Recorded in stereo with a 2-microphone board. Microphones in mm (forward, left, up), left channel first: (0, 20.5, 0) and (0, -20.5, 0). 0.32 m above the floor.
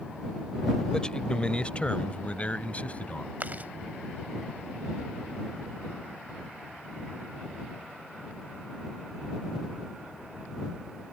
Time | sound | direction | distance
0.9 | a man speaking | 20° left (ahead or behind) | ?
3.4 | chewing | 45° right (ahead or behind) | ?